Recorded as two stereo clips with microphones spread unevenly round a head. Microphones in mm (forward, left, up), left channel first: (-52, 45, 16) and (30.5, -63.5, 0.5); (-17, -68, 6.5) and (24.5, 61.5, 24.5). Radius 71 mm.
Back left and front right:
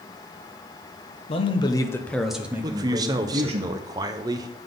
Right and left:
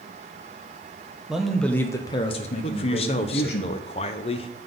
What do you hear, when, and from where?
1.3 s a man speaking: 150° left, 0.9 m; by 3.6 s 95° right, 1.1 m
2.6 s a man speaking: 100° right, 0.6 m